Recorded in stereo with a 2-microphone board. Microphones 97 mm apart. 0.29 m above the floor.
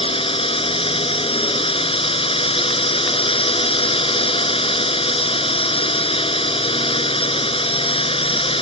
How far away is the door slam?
I don't hear a door slam.